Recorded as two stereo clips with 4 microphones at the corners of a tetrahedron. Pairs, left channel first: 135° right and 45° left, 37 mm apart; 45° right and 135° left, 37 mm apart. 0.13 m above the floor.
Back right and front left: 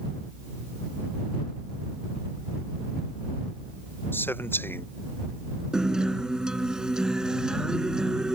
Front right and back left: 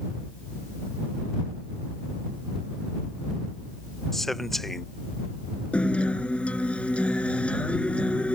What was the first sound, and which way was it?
A man speaking, 125° right.